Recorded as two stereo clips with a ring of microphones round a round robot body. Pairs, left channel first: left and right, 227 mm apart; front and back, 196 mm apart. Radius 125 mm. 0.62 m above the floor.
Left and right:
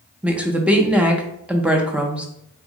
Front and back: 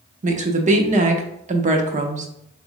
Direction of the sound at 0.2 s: 170° right.